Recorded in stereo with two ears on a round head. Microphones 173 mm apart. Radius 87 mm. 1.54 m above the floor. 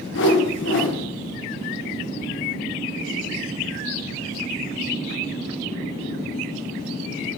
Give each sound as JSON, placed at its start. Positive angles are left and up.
{"t": 0.1, "sound": "a whoosh", "side_deg": 65, "distance_m": 1.4}